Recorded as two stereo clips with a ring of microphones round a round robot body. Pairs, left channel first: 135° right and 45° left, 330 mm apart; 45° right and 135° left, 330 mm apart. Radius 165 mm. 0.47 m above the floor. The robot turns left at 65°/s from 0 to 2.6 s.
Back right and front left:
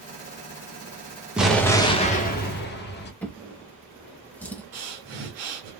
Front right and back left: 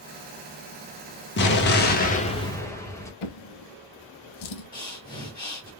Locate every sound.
1.4 s an explosion: 40° right, 1.2 m; by 3.1 s 120° right, 1.2 m
3.2 s a drawer: 50° right, 0.9 m
4.7 s breathing: 30° left, 2.5 m